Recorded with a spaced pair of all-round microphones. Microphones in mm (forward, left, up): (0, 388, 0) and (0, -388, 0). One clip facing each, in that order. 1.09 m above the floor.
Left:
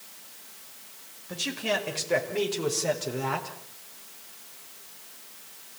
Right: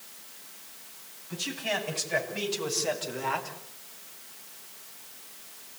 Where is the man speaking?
85° left, 6.5 m; by 3.6 s 60° left (ahead or behind), 4.5 m.